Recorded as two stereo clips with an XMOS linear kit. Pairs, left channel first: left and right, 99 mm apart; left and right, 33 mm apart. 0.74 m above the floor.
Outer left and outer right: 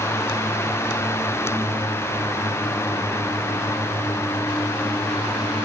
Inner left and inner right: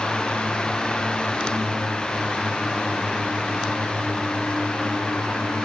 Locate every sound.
Only background noise.